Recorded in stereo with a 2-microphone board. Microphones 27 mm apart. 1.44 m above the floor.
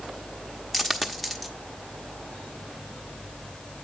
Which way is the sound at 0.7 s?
Centre (ahead or behind).